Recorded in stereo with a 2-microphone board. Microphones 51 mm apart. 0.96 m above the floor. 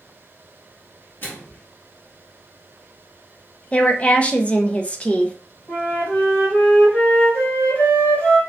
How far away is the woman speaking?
About 0.5 m.